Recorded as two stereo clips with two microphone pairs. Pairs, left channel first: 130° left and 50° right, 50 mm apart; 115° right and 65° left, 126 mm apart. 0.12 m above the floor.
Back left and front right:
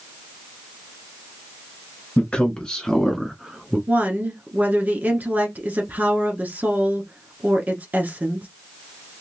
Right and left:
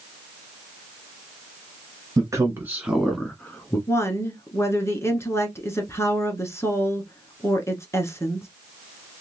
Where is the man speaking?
95° left, 1.6 m; by 3.8 s 95° right, 1.4 m.